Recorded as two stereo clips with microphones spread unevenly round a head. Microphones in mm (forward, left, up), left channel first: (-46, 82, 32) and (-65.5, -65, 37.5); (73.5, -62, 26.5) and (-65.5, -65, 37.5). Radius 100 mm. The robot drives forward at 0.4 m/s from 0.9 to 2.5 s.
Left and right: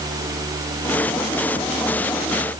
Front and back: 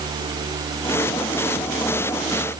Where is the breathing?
I don't hear breathing.